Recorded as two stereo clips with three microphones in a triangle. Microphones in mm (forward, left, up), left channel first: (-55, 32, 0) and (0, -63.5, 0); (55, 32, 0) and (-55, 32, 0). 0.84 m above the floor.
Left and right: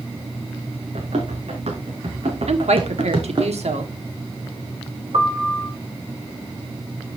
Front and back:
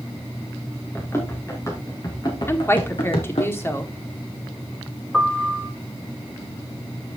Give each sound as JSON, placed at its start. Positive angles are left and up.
{"t": 0.9, "sound": "running footsteps", "azimuth_deg": -70, "distance_m": 3.5}
{"t": 2.5, "sound": "a woman speaking", "azimuth_deg": -65, "distance_m": 1.6}
{"t": 5.1, "sound": "a piano", "azimuth_deg": -90, "distance_m": 2.5}